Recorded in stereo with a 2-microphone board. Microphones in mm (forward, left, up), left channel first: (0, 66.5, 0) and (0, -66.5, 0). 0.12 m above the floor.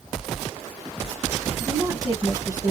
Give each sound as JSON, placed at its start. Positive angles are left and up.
{"t": 1.6, "sound": "a woman speaking", "side_deg": -25, "distance_m": 1.8}